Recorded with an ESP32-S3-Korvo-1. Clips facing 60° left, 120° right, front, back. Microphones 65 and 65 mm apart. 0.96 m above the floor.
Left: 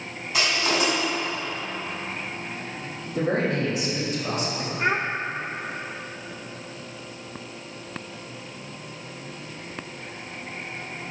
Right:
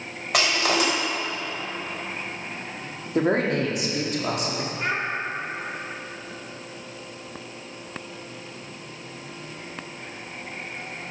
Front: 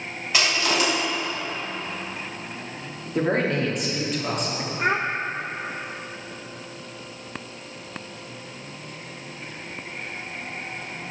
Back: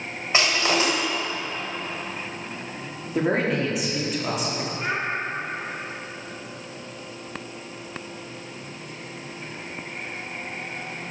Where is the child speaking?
5° left, 0.6 m.